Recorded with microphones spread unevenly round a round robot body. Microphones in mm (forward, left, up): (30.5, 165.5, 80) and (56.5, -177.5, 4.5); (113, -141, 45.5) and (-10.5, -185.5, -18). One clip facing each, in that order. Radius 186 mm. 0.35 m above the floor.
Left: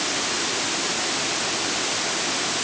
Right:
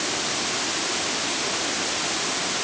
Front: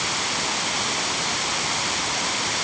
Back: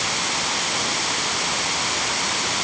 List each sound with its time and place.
Only background noise.